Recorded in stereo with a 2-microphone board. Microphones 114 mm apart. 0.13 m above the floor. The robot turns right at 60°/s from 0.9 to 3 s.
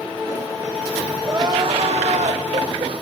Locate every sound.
1.2 s crying: 155° right, 4 m; by 3.0 s 50° right, 4 m